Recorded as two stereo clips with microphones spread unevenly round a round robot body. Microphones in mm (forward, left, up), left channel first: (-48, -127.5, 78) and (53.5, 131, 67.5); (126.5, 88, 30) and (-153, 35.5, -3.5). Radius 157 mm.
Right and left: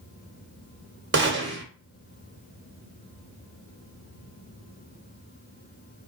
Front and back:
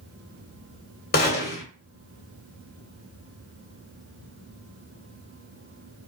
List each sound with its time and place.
1.1 s a gunshot: 60° left, 1.7 m